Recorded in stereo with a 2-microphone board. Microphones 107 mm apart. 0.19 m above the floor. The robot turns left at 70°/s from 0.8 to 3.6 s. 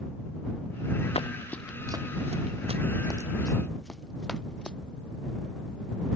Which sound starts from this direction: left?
Running footsteps, at 1.1 s.